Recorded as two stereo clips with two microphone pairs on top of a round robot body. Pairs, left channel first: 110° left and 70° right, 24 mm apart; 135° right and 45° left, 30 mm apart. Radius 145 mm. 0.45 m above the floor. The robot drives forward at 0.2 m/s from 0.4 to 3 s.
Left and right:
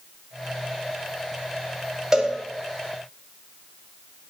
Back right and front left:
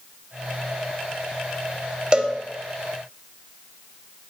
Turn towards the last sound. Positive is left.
turn(degrees=-5)